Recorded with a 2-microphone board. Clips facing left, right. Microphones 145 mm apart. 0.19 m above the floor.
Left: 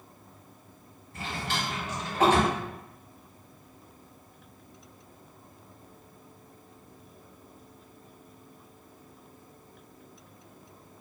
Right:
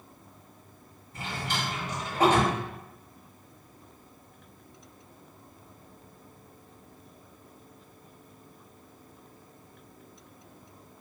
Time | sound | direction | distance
1.1 | a drawer | 15° right (ahead or behind) | 1.8 m